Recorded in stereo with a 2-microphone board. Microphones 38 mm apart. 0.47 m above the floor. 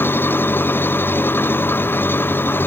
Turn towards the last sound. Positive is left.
turn(degrees=75)  # may be behind; listen again after turning